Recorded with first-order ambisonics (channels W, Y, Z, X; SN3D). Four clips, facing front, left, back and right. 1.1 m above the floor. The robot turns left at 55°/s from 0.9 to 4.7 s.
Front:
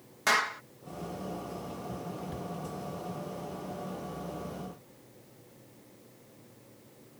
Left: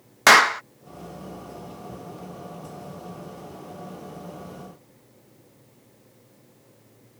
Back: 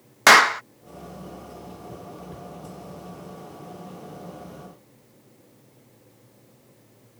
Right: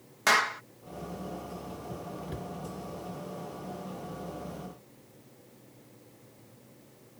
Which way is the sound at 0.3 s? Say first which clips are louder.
Left 11 dB, back 14 dB; 140° left.